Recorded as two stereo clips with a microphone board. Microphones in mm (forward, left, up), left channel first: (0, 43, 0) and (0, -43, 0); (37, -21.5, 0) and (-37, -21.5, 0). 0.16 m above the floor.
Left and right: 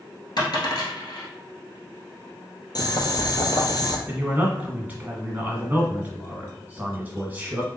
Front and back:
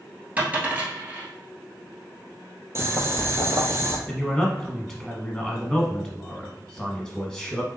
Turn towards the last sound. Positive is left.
turn(degrees=-70)